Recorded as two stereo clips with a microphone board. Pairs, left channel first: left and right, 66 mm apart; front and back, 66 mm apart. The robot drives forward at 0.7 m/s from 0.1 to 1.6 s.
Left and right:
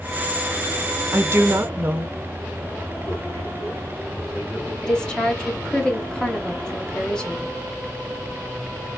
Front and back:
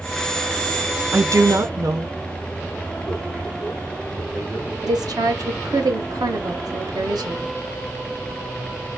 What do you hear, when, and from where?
1.1 s a woman speaking: 130° right, 0.6 m; by 2.1 s 150° right, 0.9 m
3.0 s a man speaking: 105° left, 3 m
4.8 s a woman speaking: 170° left, 1.2 m